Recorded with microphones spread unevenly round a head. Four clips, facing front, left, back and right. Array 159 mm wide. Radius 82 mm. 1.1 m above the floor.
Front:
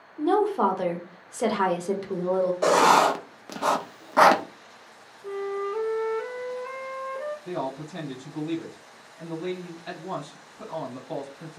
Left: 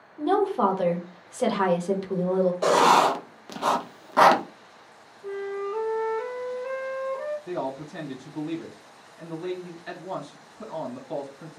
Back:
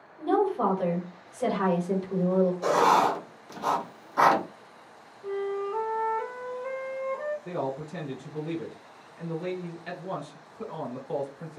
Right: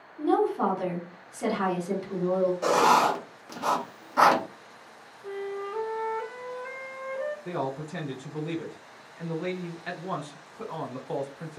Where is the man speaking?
100° right, 1.0 m.